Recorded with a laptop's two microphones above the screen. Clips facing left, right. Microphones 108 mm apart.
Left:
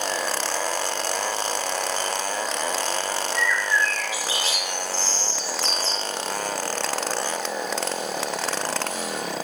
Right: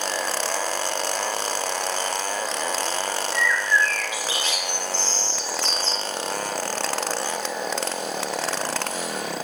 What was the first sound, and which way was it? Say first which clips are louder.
A bird: right 2 dB; 30° left (ahead or behind).